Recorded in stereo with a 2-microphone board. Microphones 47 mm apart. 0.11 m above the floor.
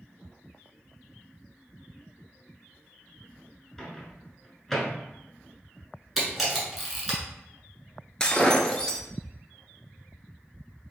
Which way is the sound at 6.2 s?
Centre (ahead or behind).